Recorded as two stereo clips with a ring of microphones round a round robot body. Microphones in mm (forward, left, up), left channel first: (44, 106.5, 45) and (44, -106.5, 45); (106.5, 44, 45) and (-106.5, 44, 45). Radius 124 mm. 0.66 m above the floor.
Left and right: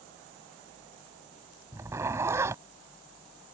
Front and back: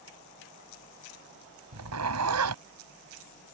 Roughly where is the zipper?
Behind.